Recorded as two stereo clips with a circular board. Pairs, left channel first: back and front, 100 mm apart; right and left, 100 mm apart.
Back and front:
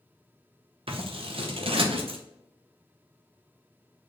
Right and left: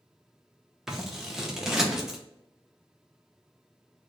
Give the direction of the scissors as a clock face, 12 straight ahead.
12 o'clock.